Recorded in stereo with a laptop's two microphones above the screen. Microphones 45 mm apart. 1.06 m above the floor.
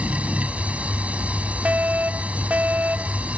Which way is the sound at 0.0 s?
30° right (ahead or behind).